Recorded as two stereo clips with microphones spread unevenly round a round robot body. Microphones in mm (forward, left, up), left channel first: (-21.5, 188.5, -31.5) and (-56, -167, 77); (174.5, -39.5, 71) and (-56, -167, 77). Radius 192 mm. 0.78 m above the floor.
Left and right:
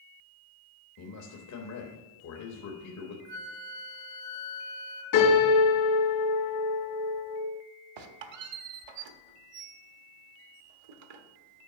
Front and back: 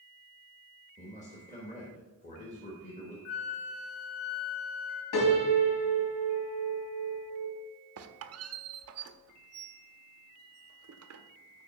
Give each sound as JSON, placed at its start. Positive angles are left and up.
{"t": 1.0, "sound": "a man speaking", "azimuth_deg": 90, "distance_m": 1.1}
{"t": 3.2, "sound": "a flute", "azimuth_deg": 45, "distance_m": 1.3}
{"t": 5.1, "sound": "a piano", "azimuth_deg": 35, "distance_m": 3.5}
{"t": 8.0, "sound": "a squeak", "azimuth_deg": -115, "distance_m": 0.8}